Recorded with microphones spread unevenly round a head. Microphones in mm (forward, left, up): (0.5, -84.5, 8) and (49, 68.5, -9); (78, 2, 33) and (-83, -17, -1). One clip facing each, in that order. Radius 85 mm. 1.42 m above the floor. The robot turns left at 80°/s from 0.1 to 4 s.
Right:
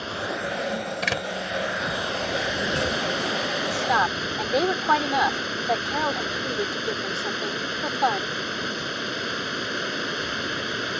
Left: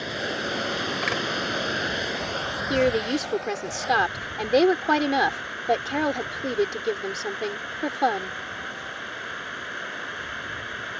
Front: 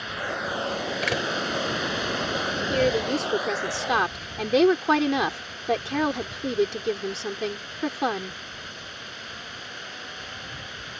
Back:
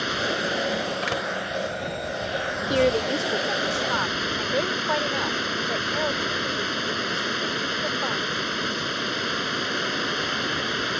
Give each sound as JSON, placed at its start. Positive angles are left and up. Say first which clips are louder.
{"t": 0.0, "sound": "running water", "louder": "even, back 5 dB", "azimuth_deg": 155}
{"t": 1.0, "sound": "a door slam", "louder": "even, front 1 dB", "azimuth_deg": -50}
{"t": 2.7, "sound": "a woman speaking", "louder": "left 10 dB, back 2 dB", "azimuth_deg": 115}